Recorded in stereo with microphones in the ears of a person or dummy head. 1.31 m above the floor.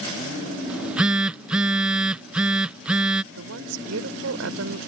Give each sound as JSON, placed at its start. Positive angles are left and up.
{"t": 0.7, "sound": "a phone buzzing", "side_deg": -10}
{"t": 3.3, "sound": "a woman speaking", "side_deg": -85}